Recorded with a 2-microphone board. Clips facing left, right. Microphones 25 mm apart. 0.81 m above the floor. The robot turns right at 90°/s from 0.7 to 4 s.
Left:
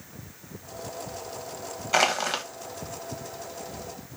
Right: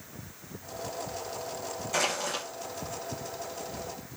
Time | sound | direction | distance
1.9 | crushing | 70° left | 1.1 m